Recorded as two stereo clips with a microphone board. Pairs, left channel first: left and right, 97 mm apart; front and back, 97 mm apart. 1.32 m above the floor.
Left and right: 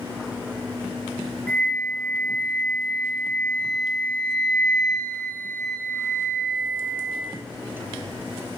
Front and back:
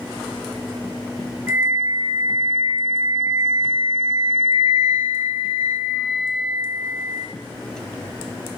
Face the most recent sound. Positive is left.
turn(degrees=140)